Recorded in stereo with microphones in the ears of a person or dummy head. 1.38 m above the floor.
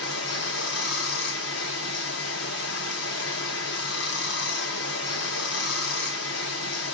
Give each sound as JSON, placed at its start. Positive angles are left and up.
{"t": 0.0, "sound": "running water", "side_deg": 60, "distance_m": 0.8}